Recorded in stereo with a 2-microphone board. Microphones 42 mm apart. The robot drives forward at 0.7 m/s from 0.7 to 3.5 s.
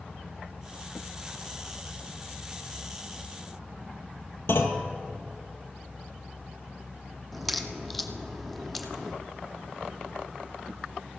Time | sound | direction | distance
4.5 | a clunk | 70° left (ahead or behind) | 1.4 m
7.3 | a crack | 5° left (ahead or behind) | 0.9 m